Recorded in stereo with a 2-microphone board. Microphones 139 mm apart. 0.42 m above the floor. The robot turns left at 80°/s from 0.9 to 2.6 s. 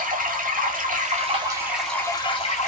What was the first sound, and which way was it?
Running water, 105° right.